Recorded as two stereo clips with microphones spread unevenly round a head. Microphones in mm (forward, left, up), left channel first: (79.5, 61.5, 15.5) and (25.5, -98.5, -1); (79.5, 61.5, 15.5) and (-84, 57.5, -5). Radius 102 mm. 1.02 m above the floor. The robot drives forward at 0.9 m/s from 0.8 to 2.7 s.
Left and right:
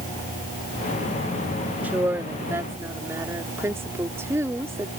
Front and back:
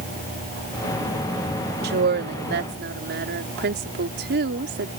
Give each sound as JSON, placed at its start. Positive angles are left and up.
{"t": 1.8, "sound": "a woman speaking", "azimuth_deg": 170}